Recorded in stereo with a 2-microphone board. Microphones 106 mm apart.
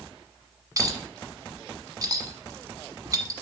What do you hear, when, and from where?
0.8 s a clink: 30° right (ahead or behind), 1.2 m